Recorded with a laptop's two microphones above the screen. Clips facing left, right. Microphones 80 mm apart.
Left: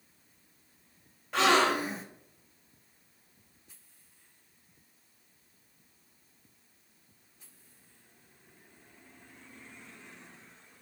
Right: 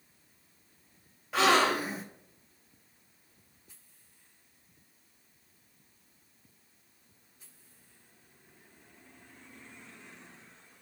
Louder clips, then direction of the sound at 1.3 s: Even; centre (ahead or behind).